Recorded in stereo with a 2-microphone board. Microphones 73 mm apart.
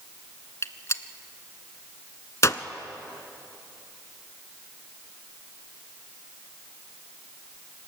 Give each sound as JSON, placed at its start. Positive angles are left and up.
{"t": 0.6, "sound": "a gunshot", "side_deg": 45, "distance_m": 0.8}